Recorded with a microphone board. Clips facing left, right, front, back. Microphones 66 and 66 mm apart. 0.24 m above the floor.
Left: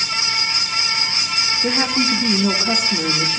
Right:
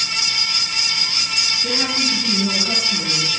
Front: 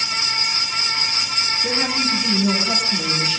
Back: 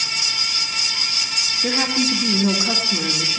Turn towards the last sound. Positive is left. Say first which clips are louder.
# left 4 dB, back 3 dB
turn(degrees=125)